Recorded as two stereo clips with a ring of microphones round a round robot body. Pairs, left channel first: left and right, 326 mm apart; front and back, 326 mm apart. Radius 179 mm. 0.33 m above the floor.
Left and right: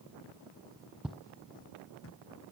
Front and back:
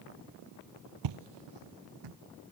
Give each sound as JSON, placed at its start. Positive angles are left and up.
{"t": 1.0, "sound": "footsteps", "azimuth_deg": -175}